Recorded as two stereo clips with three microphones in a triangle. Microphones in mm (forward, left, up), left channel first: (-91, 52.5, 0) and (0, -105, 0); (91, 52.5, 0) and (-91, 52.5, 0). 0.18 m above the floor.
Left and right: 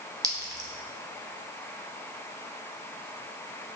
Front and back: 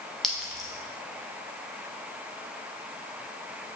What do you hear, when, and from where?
0.2 s a clink: 85° right, 0.6 m